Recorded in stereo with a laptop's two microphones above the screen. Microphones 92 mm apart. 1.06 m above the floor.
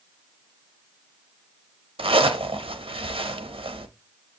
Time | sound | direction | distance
2.0 | a zipper | 80° right | 0.6 m